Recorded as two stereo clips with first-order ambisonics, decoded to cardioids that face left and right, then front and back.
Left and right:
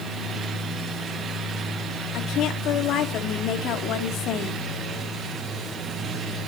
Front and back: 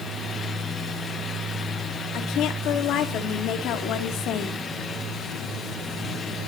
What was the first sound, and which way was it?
A woman speaking, 45° left.